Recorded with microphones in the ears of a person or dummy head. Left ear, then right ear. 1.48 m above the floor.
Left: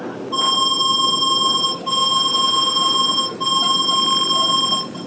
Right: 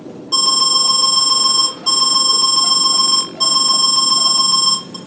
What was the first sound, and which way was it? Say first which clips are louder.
An alarm: right 3 dB; 70° right (ahead or behind).